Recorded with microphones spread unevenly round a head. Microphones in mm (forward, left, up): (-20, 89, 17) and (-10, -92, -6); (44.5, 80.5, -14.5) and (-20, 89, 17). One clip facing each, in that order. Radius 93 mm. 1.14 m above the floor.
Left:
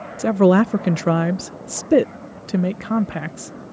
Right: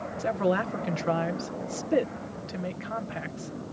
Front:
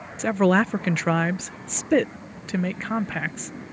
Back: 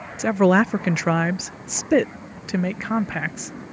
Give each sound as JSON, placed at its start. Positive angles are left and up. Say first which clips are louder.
{"t": 0.2, "sound": "a woman speaking", "louder": "left 12 dB, back 3 dB", "azimuth_deg": 75}